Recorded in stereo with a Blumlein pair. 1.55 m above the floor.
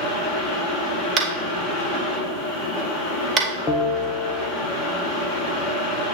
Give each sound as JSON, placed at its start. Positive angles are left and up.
{"t": 0.0, "sound": "a fan", "azimuth_deg": 35, "distance_m": 1.7}
{"t": 1.2, "sound": "tapping", "azimuth_deg": -30, "distance_m": 1.3}
{"t": 3.7, "sound": "a bell", "azimuth_deg": 20, "distance_m": 1.0}